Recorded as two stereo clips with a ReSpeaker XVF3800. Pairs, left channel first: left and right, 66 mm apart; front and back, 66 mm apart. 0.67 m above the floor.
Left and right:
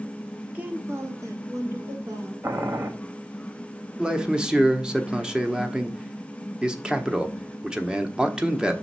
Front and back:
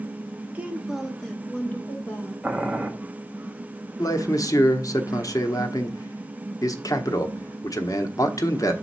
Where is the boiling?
105° right, 1.1 m.